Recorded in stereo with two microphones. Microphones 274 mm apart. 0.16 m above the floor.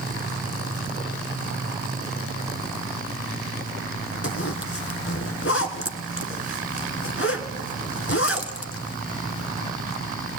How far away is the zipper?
About 1.3 m.